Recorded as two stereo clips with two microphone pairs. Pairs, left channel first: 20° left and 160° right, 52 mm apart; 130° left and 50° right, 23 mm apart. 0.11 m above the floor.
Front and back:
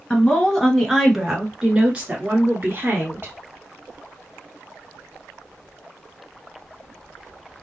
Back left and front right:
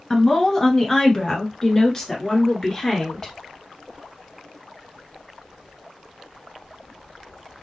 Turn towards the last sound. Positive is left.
turn(degrees=-170)